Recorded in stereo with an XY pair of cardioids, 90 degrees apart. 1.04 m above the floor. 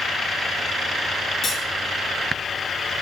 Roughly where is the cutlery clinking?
Ahead left.